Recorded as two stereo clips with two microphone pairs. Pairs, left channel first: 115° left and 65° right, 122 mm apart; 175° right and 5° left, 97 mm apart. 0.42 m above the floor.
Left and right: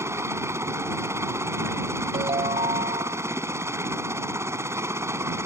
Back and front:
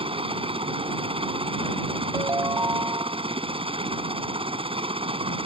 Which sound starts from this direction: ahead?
A helicopter, at 0.0 s.